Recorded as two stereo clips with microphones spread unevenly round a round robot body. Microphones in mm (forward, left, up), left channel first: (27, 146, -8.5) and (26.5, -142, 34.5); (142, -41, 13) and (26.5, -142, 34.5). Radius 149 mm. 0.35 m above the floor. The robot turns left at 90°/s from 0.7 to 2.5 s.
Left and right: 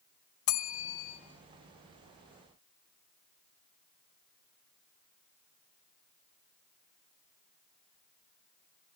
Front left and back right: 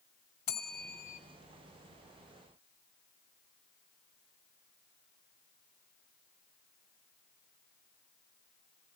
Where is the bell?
95° left, 1.8 m; by 1.2 s 50° left, 1.8 m.